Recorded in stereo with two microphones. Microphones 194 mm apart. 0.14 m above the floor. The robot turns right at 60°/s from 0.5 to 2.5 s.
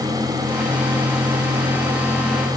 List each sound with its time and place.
Only background noise.